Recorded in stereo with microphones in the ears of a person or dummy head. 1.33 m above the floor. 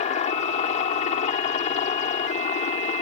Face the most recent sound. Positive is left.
turn(degrees=45)  # may be behind; listen again after turning